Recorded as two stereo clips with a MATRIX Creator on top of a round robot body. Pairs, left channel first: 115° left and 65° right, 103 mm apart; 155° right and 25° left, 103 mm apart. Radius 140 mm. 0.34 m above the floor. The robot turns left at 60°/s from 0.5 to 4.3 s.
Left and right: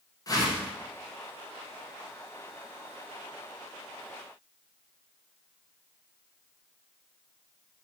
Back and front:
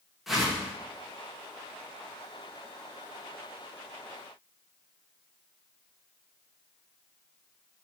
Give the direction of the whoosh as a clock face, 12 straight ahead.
8 o'clock.